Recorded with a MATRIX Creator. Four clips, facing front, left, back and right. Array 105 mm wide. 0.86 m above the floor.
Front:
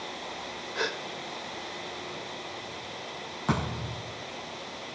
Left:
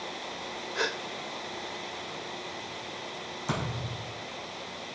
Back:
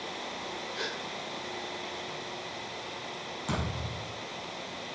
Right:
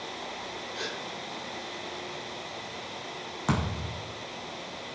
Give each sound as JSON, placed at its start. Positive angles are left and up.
{"t": 0.8, "sound": "a gasp", "azimuth_deg": 55, "distance_m": 0.8}
{"t": 3.5, "sound": "a thud", "azimuth_deg": -60, "distance_m": 6.0}